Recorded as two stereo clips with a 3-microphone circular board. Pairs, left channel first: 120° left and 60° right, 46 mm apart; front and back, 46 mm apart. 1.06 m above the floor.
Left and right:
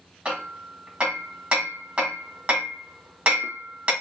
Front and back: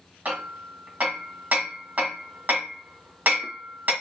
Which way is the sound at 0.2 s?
125° right.